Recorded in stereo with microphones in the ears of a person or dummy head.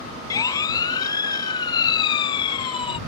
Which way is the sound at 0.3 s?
25° left (ahead or behind).